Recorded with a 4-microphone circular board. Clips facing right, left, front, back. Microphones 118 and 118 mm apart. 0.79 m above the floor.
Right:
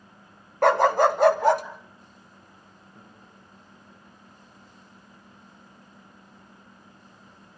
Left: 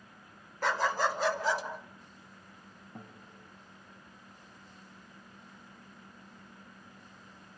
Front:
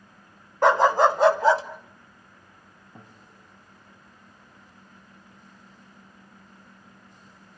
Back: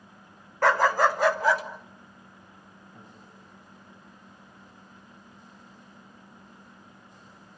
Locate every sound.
0.6 s a dog barking: 65° right, 0.8 m; by 1.6 s 60° right, 1.8 m
3.0 s a guitar: 60° left, 3 m